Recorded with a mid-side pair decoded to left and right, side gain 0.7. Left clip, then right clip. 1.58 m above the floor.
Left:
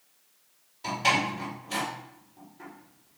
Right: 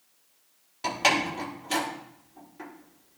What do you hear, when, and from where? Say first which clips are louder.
0.8 s a door slam: right 1 dB; 50° right, 4 m